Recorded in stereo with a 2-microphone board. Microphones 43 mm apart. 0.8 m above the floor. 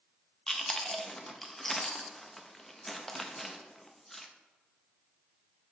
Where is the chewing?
5° left (ahead or behind), 0.5 m.